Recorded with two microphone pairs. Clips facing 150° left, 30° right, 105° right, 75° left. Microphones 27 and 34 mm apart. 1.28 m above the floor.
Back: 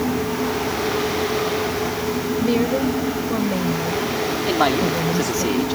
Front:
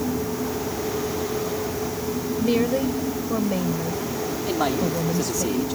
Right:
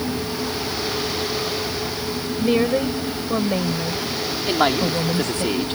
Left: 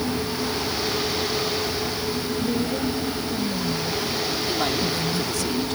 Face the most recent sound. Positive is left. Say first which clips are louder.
# back 5 dB, right 8 dB
turn(degrees=-155)